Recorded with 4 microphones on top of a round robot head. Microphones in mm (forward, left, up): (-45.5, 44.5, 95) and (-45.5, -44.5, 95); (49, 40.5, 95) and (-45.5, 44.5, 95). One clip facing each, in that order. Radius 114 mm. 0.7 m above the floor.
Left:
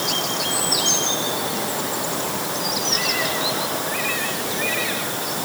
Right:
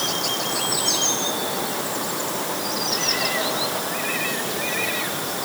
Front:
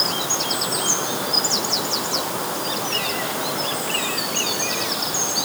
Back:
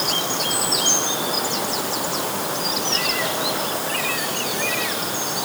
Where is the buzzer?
I don't hear a buzzer.